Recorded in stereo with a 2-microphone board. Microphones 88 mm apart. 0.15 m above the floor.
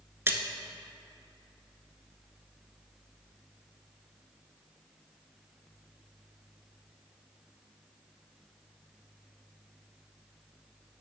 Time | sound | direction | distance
0.3 | a splash | 30° right (ahead or behind) | 0.6 m